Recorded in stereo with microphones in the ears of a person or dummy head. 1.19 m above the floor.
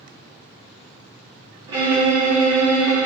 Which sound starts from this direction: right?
A violin, at 1.7 s.